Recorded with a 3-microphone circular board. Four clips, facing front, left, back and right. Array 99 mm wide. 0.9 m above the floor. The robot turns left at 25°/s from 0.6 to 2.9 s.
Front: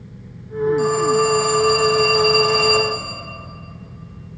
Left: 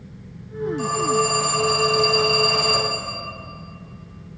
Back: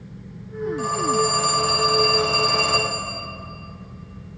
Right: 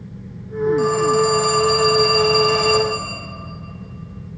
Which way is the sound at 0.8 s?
115° right.